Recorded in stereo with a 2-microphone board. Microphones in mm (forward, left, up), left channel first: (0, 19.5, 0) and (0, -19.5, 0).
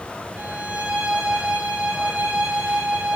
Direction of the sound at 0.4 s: 30° right (ahead or behind).